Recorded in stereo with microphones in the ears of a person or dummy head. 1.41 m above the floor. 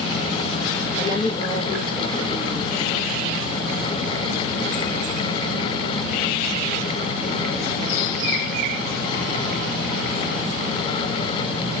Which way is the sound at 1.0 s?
30° left (ahead or behind).